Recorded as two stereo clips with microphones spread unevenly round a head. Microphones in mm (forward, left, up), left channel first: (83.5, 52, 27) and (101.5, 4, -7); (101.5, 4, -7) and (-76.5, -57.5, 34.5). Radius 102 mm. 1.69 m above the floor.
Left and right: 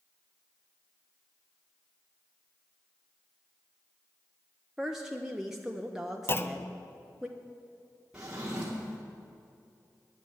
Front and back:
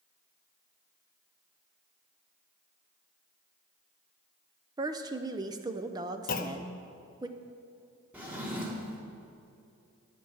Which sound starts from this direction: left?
A clunk, at 6.3 s.